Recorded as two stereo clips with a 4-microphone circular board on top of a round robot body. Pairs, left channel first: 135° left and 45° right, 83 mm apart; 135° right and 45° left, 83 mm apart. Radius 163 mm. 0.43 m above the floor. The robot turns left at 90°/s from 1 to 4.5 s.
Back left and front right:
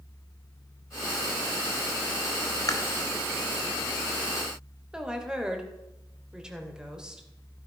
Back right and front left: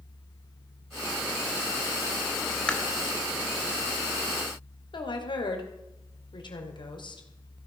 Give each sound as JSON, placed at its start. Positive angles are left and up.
{"t": 2.7, "sound": "chewing", "azimuth_deg": 150, "distance_m": 1.6}
{"t": 4.9, "sound": "a woman speaking", "azimuth_deg": -125, "distance_m": 2.5}